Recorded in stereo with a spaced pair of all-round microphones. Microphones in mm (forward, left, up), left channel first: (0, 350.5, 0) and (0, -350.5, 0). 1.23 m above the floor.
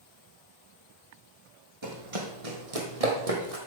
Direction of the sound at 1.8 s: 40° right (ahead or behind).